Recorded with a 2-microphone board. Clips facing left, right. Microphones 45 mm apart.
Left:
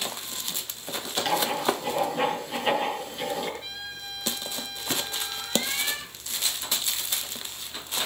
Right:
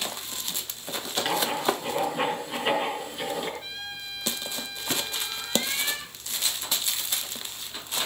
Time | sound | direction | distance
1.2 | writing | 15° right (ahead or behind) | 4 m
3.6 | a trumpet | 10° right (ahead or behind) | 2.0 m